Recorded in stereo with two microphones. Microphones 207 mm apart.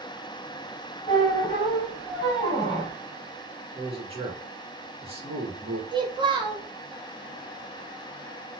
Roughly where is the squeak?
Left.